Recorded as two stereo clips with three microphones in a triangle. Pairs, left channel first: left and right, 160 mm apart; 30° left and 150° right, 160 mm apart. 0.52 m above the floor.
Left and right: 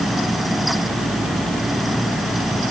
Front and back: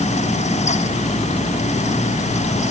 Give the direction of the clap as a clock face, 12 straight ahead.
I don't hear a clap.